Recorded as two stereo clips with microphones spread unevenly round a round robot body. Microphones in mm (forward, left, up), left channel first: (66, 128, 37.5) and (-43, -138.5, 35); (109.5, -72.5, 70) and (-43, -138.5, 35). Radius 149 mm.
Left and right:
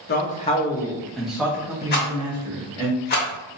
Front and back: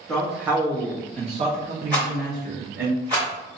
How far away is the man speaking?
About 0.7 m.